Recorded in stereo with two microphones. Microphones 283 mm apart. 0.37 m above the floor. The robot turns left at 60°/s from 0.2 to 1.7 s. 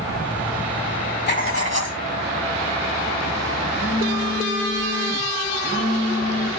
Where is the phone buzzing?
35° left (ahead or behind), 4.5 m.